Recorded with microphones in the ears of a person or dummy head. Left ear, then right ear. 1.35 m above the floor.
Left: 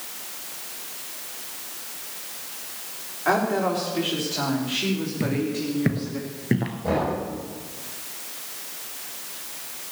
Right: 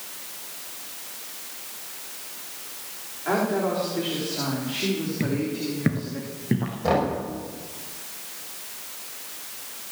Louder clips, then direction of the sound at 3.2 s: Left 2 dB; 35° left (ahead or behind).